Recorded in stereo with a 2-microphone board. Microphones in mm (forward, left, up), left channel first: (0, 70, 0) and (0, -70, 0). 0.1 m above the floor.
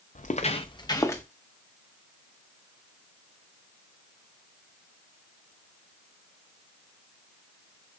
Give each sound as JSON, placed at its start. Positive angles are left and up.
{"t": 0.1, "sound": "footsteps", "side_deg": 65, "distance_m": 0.6}